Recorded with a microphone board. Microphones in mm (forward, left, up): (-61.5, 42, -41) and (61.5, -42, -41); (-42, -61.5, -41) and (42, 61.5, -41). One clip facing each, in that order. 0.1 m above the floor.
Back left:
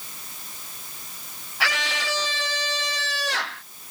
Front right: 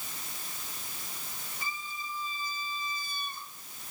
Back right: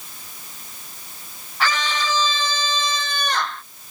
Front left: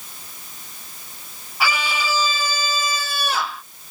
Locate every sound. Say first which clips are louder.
1.6 s a scream: back left 14 dB, even; 135° left; by 3.6 s 140° left